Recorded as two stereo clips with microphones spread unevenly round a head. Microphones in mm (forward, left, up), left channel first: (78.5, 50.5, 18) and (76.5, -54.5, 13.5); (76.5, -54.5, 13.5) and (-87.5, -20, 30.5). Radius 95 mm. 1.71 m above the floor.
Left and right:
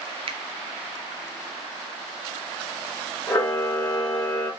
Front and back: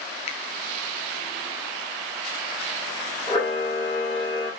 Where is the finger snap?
65° right, 0.5 m.